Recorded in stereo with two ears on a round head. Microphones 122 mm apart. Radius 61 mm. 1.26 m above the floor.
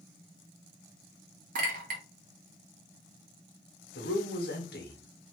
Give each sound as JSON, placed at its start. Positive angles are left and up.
{"t": 1.6, "sound": "a clink", "side_deg": -70, "distance_m": 1.0}
{"t": 4.0, "sound": "a man speaking", "side_deg": 80, "distance_m": 1.2}